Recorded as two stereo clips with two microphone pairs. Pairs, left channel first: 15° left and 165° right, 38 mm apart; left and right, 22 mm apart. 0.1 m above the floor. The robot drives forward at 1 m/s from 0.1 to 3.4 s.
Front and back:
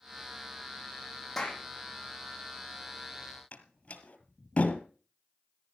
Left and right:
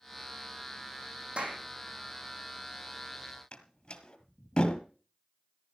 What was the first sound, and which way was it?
A clap, 65° right.